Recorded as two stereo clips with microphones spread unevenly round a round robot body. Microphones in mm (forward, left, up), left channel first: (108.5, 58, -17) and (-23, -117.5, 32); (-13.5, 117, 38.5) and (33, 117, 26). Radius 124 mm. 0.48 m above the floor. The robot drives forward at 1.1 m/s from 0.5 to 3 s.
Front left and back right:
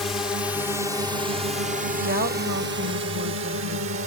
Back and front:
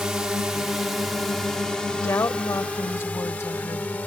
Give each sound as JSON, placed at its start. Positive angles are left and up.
{"t": 0.0, "sound": "a drone", "azimuth_deg": -5}
{"t": 1.9, "sound": "a woman speaking", "azimuth_deg": 180}